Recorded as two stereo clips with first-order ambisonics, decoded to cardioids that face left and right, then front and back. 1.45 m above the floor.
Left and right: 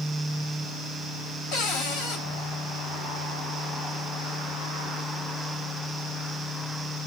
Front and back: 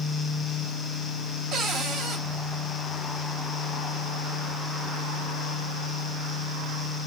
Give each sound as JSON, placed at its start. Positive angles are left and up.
{"t": 1.5, "sound": "a cupboard door", "azimuth_deg": 125, "distance_m": 2.0}